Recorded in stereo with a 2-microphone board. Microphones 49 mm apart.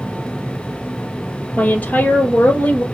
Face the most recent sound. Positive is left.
turn(degrees=30)  # may be behind; listen again after turning